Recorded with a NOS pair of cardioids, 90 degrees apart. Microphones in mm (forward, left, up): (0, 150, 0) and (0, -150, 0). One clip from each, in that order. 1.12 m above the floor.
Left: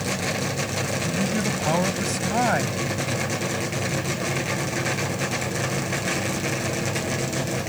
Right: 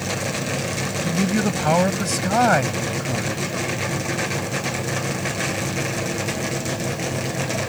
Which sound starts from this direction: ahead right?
A man speaking, at 1.0 s.